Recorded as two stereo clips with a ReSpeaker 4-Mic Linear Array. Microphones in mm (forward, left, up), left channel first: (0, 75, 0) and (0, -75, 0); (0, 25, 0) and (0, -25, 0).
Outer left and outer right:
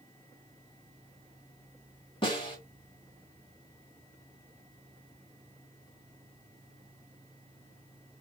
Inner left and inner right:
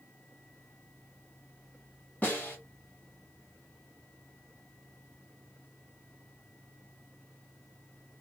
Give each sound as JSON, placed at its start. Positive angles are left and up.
{"t": 2.2, "sound": "a snare drum", "side_deg": 35, "distance_m": 1.5}